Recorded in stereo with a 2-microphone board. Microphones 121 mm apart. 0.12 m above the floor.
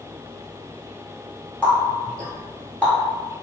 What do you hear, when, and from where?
1.6 s a running tap: 10° left (ahead or behind), 1.5 m